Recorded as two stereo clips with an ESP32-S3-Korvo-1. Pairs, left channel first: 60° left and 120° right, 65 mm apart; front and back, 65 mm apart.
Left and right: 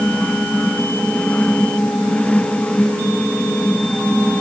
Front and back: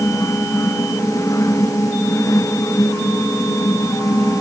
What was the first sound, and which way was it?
Only background noise.